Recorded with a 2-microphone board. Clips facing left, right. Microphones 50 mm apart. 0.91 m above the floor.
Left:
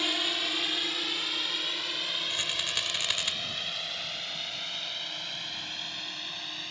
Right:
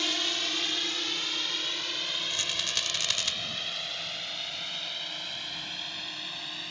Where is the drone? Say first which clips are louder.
Left 1 dB; 10° left (ahead or behind); by 6.7 s centre (ahead or behind).